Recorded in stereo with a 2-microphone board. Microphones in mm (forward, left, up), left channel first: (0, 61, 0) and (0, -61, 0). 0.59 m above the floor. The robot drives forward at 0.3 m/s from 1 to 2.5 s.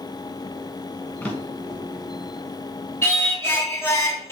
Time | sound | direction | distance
1.2 | a drawer | 10° left (ahead or behind) | 1.1 m
3.0 | singing | 20° left (ahead or behind) | 0.9 m